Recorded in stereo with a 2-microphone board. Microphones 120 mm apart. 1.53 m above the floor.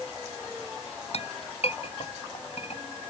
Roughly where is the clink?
Left.